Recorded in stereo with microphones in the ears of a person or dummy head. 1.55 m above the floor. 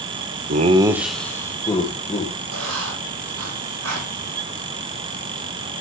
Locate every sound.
0.5 s laughter: 45° right (ahead or behind), 0.7 m; by 2.3 s 30° left (ahead or behind), 1.9 m
2.5 s writing: 80° right, 2.5 m